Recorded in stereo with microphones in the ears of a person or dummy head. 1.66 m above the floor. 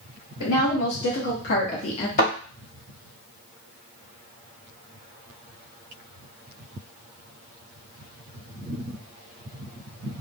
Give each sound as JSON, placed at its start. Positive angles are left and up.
{"t": 0.4, "sound": "a woman speaking", "side_deg": 80, "distance_m": 1.1}
{"t": 2.2, "sound": "a thud", "side_deg": 45, "distance_m": 1.7}